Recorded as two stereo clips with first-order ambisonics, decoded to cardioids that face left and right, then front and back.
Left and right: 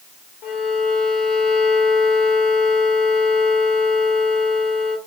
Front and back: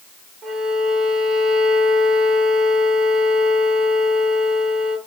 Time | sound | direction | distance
0.4 | a violin | 120° left | 0.8 m